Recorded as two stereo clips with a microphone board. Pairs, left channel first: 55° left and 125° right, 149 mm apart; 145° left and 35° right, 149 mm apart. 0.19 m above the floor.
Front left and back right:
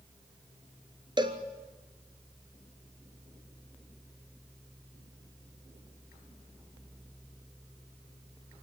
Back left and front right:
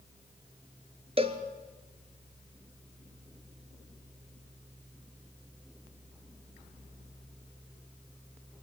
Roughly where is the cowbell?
Right.